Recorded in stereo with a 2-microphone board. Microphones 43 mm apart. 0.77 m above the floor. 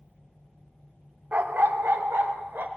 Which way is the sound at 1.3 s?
50° right (ahead or behind).